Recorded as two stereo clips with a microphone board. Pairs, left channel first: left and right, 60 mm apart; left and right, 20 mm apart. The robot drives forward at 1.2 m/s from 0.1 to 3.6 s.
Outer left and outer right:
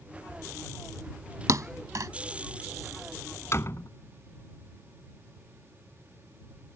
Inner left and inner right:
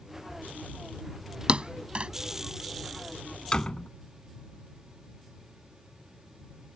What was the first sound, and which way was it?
A thud, 70° right (ahead or behind).